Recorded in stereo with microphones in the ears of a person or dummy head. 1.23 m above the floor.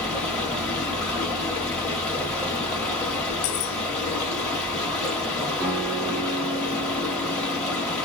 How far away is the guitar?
About 1.6 m.